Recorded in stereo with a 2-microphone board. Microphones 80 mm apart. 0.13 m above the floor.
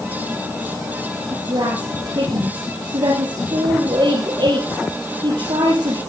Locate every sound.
1.3 s a woman speaking: 70° right (ahead or behind), 4 m